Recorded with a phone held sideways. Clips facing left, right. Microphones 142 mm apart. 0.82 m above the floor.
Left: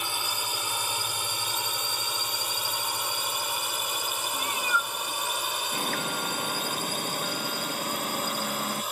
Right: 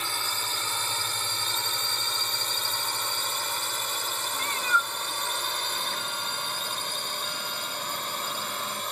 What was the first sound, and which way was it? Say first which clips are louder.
A drone: left 1 dB; 15° left (ahead or behind).